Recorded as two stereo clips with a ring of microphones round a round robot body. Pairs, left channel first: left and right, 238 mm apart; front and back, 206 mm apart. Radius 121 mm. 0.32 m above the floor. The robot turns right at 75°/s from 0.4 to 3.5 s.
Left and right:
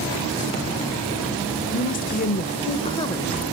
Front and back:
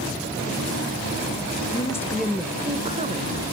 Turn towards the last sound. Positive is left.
turn(degrees=-175)